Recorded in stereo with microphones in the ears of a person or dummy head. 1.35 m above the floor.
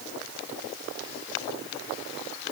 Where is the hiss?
No hiss in this recording.